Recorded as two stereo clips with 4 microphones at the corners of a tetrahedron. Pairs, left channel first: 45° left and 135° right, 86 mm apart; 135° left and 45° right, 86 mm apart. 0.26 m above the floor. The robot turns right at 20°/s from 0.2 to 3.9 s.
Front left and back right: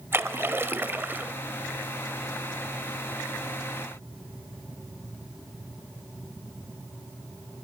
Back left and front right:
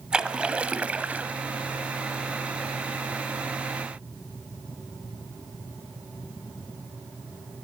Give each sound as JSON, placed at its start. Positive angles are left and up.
{"t": 0.1, "sound": "a splash", "azimuth_deg": -115, "distance_m": 0.6}